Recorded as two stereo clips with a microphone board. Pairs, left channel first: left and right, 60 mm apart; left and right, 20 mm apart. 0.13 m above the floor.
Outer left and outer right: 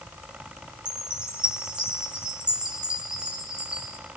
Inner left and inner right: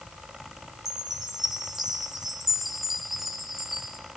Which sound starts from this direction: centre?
A chime, at 0.8 s.